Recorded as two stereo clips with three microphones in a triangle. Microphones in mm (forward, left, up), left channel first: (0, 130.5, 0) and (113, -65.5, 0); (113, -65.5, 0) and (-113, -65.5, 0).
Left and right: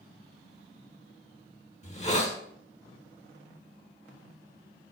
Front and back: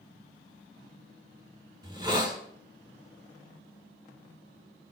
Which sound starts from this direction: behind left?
A hiss, at 1.8 s.